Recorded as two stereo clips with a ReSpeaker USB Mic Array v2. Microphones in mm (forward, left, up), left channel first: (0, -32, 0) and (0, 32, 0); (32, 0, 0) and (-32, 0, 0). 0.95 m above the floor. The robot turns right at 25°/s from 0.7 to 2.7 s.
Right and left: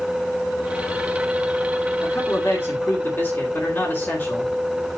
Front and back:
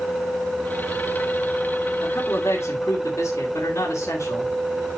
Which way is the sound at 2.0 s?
55° right.